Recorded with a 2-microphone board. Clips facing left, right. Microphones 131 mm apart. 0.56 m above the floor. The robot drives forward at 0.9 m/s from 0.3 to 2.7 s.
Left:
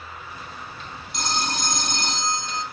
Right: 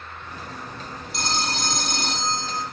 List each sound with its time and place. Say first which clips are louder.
1.1 s a phone ringing: even; centre (ahead or behind), 4 m; by 2.6 s 5° right (ahead or behind), 2.5 m